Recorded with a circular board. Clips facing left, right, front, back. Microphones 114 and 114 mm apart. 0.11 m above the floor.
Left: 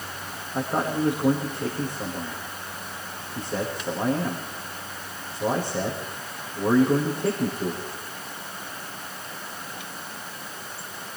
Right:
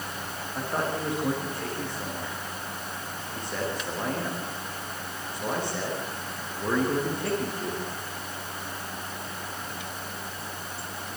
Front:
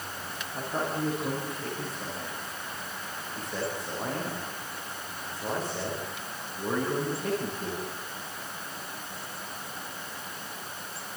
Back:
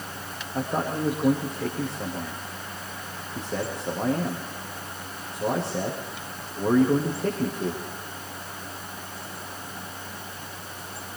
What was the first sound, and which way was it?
A man speaking, 165° left.